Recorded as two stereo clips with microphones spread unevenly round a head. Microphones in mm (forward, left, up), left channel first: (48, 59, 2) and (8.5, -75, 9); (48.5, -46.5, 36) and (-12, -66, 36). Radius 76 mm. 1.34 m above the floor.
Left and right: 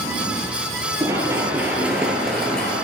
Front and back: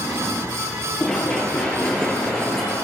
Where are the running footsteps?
55° right, 1.7 m; by 2.8 s 55° left, 1.3 m.